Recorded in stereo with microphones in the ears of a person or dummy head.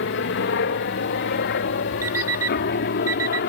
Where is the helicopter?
60° left (ahead or behind).